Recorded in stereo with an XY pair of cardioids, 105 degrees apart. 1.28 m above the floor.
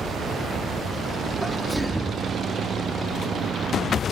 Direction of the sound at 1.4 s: 5° right.